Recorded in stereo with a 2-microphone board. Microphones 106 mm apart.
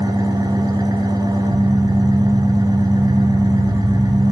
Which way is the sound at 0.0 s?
40° right (ahead or behind).